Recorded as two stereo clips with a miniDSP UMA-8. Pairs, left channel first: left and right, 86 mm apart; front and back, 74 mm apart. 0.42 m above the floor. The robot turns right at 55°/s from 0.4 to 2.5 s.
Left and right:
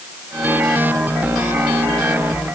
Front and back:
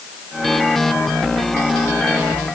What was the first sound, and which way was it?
Only background noise.